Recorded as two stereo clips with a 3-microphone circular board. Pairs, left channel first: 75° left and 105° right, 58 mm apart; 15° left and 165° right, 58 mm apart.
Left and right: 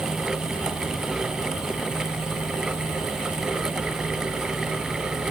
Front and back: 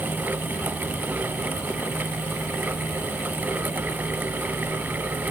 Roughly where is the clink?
No clink in this recording.